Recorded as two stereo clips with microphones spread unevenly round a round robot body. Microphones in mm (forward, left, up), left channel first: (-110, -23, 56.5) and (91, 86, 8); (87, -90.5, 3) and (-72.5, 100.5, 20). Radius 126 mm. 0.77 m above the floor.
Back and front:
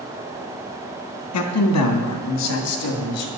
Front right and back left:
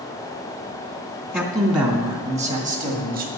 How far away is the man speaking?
About 1.8 m.